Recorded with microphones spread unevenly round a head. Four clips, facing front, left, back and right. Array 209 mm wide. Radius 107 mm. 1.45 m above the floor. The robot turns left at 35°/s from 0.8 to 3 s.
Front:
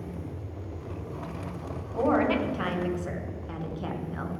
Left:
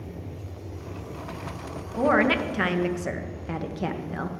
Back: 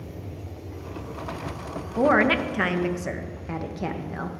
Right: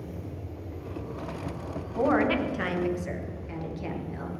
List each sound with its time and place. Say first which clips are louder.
2.0 s a woman speaking: left 2 dB, back 4 dB; 155° left, 1.5 m; by 4.3 s 120° left, 1.5 m